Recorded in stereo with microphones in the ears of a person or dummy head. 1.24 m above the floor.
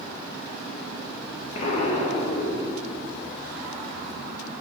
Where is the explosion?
40° left (ahead or behind), 0.8 m.